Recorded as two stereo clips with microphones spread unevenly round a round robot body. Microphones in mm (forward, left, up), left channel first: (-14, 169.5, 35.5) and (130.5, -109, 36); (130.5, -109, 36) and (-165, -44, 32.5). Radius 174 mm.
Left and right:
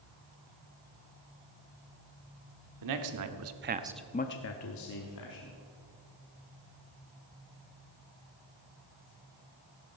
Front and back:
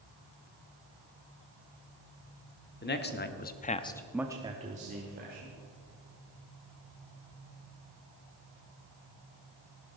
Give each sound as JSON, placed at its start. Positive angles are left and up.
{"t": 2.8, "sound": "a man speaking", "azimuth_deg": -65, "distance_m": 1.6}